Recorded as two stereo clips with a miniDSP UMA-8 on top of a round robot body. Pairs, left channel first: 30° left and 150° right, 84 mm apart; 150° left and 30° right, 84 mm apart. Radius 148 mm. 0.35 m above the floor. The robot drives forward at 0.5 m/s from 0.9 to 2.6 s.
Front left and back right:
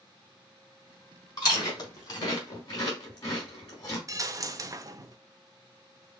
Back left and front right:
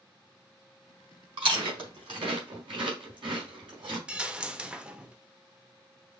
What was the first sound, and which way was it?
Chewing, 10° right.